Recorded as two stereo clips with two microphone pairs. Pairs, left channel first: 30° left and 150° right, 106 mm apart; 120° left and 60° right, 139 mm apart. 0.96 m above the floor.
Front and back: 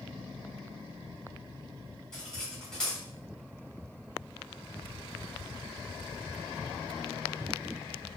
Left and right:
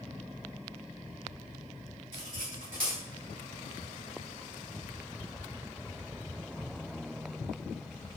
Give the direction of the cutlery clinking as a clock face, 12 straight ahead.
2 o'clock.